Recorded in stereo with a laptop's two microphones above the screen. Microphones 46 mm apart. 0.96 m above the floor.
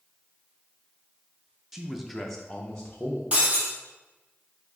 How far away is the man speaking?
About 0.6 m.